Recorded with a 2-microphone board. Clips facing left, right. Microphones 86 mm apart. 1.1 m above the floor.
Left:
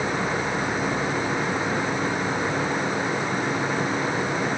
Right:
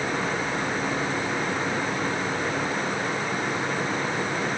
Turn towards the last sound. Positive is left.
No sound to turn to.